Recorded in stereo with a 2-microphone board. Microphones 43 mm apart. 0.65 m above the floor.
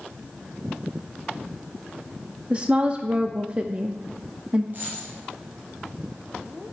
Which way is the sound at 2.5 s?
30° right (ahead or behind).